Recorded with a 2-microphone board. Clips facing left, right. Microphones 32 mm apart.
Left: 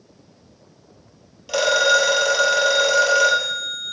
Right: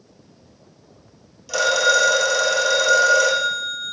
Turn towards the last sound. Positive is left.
turn(degrees=30)  # may be behind; listen again after turning